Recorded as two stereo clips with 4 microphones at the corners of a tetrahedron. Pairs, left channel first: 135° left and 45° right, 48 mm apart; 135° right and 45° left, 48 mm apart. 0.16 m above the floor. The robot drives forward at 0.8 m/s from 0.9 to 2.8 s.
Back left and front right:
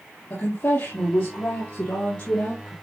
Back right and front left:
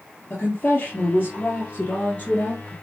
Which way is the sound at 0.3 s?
170° left.